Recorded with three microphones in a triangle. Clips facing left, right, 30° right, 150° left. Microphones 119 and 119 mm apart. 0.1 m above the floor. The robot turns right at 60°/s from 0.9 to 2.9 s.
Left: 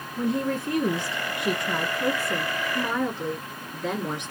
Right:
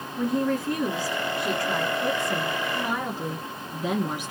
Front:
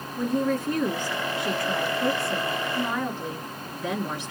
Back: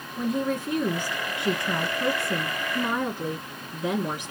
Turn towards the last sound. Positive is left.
turn(degrees=-155)